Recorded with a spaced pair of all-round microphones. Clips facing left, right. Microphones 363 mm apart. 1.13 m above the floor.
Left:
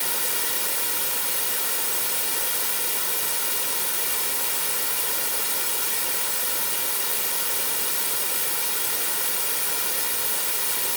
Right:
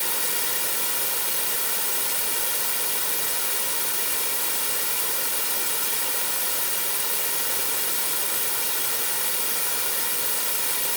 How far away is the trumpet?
No trumpet in this recording.